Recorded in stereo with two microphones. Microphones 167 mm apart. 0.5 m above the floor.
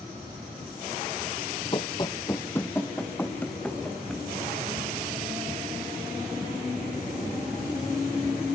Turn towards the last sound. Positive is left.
turn(degrees=5)  # may be behind; listen again after turning